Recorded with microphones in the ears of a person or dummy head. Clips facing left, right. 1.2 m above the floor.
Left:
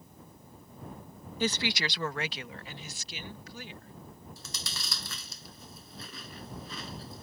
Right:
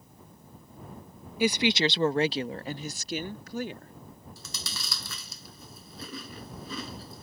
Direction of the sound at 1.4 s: 10° right (ahead or behind).